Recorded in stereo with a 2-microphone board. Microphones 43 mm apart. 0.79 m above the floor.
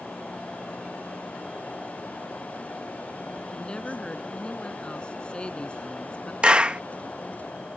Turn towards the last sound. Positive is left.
turn(degrees=-25)  # may be behind; listen again after turning